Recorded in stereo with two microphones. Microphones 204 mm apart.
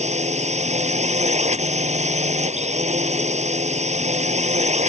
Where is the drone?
35° right (ahead or behind).